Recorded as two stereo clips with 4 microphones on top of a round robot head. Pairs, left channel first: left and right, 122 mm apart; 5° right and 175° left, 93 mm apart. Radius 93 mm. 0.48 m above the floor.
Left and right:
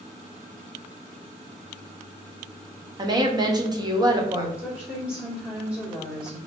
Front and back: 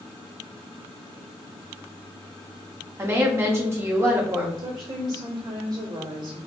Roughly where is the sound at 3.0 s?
Behind right.